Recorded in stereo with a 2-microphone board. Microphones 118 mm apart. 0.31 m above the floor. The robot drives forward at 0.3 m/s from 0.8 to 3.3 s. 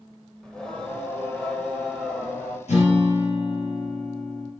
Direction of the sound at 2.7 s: 70° left (ahead or behind).